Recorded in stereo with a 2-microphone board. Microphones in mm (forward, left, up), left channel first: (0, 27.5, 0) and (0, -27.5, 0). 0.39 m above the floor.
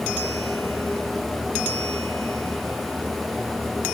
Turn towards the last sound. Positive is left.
No sound to turn to.